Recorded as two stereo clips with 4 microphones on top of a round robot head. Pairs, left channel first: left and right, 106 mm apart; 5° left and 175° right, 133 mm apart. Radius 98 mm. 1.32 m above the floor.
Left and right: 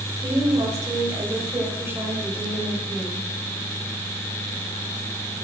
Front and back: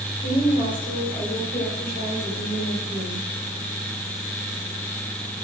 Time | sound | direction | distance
0.2 | a woman speaking | 35° right | 6 m